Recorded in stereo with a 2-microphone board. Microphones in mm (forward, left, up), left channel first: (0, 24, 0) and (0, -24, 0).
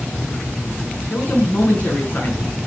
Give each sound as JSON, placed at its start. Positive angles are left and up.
{"t": 1.1, "sound": "a man speaking", "side_deg": 35, "distance_m": 5.5}